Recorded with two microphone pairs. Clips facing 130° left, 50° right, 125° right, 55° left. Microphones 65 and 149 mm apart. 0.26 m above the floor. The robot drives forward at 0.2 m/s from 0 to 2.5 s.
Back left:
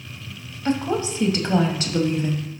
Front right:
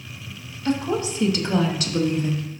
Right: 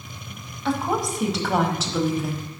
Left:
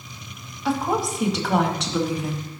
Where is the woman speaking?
140° left, 1.0 m; by 2.4 s 160° left, 1.2 m.